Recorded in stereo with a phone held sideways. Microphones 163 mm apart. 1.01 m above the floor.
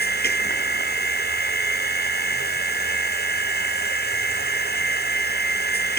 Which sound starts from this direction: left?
A machine running, at 0.0 s.